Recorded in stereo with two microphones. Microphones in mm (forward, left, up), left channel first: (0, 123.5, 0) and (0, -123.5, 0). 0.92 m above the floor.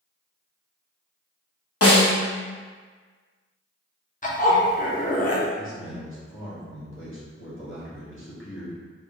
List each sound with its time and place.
1.8 s a snare drum: 65° left (ahead or behind), 0.8 m
4.2 s a zipper: 35° left (ahead or behind), 0.6 m
5.5 s a man speaking: 55° left (ahead or behind), 1.2 m